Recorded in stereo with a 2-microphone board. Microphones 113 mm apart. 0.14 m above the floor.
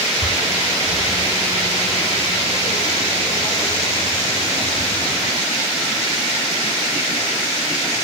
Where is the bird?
55° left (ahead or behind), 6 m.